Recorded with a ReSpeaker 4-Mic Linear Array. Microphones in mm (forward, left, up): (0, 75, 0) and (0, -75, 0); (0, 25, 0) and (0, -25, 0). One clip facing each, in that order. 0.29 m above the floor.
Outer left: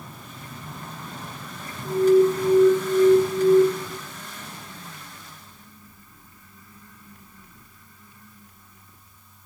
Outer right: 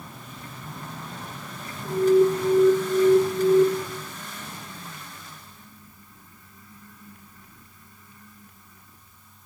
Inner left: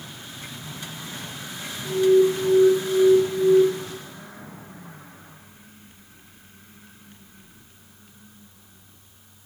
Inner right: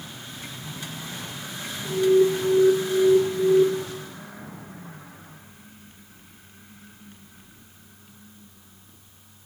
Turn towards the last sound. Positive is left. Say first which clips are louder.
# outer left 1 dB, inner left 1 dB
turn(degrees=0)  # may be behind; listen again after turning